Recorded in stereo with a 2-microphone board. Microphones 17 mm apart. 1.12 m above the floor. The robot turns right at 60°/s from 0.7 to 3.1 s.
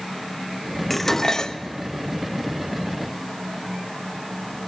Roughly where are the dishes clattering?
Ahead.